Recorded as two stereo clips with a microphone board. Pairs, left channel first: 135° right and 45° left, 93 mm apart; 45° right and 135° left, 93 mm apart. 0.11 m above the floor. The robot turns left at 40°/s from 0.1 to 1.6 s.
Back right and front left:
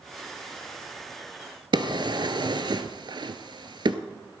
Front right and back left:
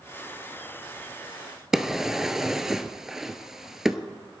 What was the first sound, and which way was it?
A drawer, 50° left.